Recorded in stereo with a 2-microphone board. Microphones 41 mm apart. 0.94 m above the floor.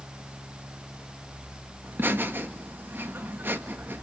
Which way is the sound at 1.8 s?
55° right (ahead or behind).